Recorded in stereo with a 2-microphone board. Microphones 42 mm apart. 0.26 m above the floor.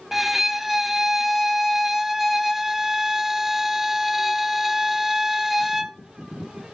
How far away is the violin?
About 0.7 m.